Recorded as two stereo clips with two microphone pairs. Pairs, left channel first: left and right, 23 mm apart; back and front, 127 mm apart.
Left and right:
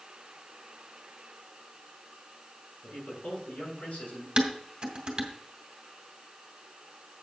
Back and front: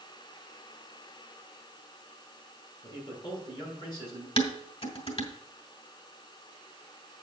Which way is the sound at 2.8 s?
125° left.